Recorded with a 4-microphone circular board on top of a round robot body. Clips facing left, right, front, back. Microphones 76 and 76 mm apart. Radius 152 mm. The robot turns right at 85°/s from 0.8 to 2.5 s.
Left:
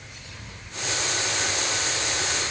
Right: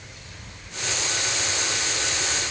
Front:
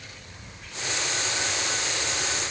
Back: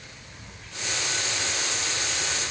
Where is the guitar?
I don't hear a guitar.